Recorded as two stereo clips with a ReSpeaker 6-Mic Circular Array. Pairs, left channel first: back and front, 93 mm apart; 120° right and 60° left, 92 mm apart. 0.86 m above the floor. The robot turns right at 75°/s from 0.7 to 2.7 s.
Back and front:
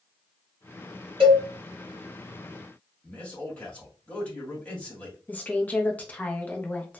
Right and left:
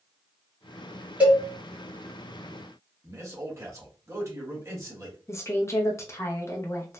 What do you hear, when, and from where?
1.2 s a cowbell: 15° right, 1.4 m; by 1.4 s straight ahead, 1.4 m
3.0 s a man speaking: 110° left, 1.4 m
5.3 s a woman speaking: 125° right, 0.6 m